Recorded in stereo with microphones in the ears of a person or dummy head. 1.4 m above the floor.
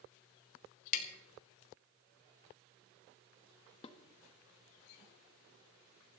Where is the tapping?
45° left (ahead or behind), 1.9 m.